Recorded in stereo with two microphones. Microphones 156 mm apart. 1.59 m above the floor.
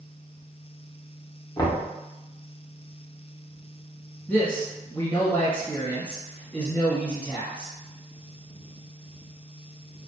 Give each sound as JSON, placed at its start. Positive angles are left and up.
{"t": 1.6, "sound": "knocking", "side_deg": 25, "distance_m": 0.6}
{"t": 4.3, "sound": "a man speaking", "side_deg": 10, "distance_m": 1.1}